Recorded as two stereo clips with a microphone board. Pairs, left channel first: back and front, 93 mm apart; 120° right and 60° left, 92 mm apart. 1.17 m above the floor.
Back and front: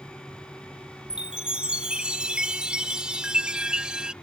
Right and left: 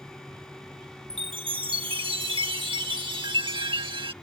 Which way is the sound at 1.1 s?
80° left.